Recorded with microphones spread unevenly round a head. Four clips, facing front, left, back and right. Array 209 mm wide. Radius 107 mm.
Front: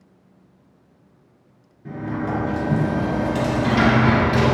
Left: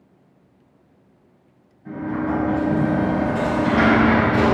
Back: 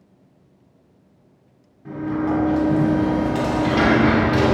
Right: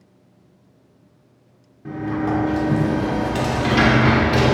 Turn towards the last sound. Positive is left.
turn(degrees=-75)